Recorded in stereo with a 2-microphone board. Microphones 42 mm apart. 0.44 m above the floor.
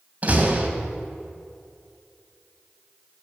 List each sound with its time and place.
0.2 s a door slam: 35° right (ahead or behind), 1.9 m